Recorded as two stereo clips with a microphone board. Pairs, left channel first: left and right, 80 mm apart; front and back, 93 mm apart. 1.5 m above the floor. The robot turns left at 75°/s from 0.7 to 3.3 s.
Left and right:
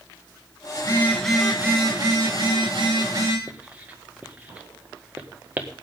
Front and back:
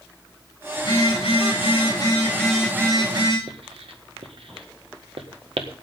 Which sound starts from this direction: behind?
Writing, at 3.5 s.